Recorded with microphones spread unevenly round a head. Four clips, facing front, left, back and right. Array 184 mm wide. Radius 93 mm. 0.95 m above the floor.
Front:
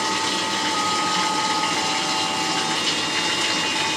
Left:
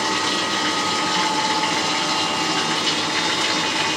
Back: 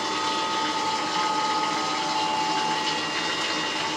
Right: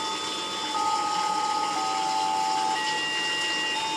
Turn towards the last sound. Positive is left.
turn(degrees=60)